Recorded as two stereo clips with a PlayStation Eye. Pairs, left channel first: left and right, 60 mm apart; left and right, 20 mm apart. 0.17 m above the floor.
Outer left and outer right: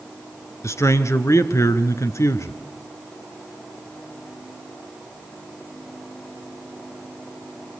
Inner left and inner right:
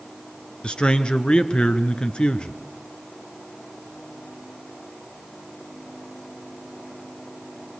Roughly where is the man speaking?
Left.